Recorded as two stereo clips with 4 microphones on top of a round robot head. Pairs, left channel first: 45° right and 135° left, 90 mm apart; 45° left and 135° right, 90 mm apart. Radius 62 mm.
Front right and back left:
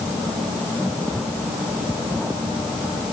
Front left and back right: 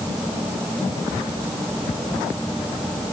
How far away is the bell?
I don't hear a bell.